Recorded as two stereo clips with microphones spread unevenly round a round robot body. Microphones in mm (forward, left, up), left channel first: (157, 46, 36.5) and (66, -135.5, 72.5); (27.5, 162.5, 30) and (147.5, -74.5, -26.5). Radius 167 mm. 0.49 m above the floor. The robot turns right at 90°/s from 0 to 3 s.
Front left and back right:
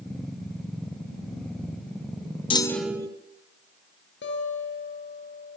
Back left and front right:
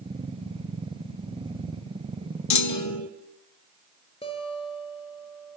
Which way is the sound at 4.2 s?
50° left.